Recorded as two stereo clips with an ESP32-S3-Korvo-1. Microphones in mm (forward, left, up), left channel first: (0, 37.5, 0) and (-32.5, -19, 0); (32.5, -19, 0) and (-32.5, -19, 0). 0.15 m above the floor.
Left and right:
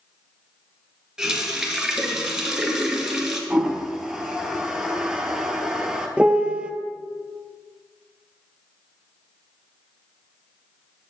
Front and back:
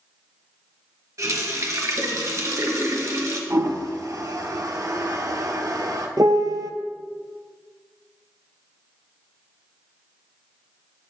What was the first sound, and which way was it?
A running tap, 160° left.